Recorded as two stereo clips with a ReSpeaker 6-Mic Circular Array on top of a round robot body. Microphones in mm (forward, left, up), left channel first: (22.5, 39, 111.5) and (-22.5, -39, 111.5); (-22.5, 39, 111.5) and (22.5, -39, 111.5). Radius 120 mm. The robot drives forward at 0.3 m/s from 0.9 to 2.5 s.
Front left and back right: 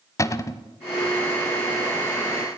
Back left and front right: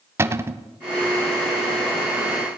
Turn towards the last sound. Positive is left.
turn(degrees=5)